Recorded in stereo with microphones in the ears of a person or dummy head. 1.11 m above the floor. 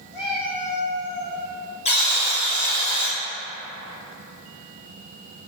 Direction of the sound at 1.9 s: 25° left (ahead or behind).